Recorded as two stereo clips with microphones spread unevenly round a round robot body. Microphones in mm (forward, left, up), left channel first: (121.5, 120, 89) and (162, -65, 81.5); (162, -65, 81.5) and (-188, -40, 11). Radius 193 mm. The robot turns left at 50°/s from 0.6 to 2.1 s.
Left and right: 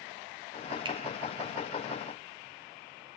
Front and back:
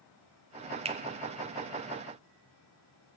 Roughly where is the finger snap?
Behind right.